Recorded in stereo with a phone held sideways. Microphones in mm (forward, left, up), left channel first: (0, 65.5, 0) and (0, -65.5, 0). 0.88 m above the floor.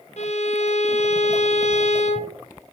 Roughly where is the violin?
Left.